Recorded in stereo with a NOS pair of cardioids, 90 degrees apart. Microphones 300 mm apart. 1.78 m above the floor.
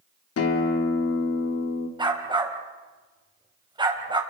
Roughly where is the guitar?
Ahead left.